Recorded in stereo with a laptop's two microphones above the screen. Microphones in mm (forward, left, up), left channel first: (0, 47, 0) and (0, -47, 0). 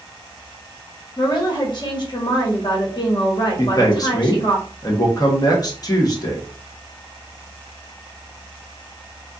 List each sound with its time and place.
1.2 s a woman speaking: 50° left (ahead or behind), 1.4 m
3.6 s a man speaking: 40° left (ahead or behind), 1.0 m